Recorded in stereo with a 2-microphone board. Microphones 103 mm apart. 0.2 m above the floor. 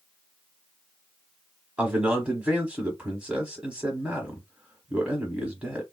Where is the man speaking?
10° right (ahead or behind), 1.0 m.